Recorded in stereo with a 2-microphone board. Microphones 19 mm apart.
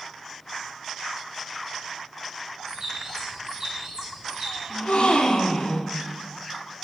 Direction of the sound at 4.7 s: 75° left (ahead or behind).